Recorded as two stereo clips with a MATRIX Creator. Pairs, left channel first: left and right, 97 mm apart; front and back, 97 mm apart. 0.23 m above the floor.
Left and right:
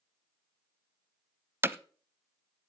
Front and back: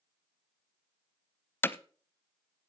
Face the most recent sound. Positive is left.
turn(degrees=-50)